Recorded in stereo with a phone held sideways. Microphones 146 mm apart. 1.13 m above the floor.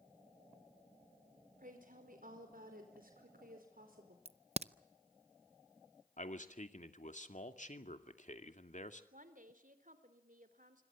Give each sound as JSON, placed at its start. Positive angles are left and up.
{"t": 1.6, "sound": "a woman speaking", "side_deg": -70, "distance_m": 4.5}
{"t": 4.2, "sound": "a crack", "side_deg": -45, "distance_m": 0.6}
{"t": 6.2, "sound": "a man speaking", "side_deg": 55, "distance_m": 2.0}
{"t": 9.1, "sound": "a woman speaking", "side_deg": -65, "distance_m": 3.0}